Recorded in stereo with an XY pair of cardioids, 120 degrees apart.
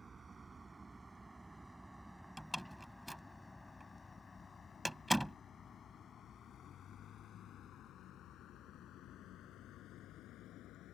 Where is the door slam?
5° right.